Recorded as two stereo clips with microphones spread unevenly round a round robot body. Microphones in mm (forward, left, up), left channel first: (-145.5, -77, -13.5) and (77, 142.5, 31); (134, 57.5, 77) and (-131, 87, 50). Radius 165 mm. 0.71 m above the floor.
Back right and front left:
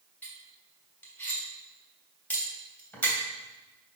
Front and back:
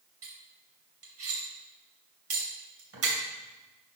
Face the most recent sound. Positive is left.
turn(degrees=140)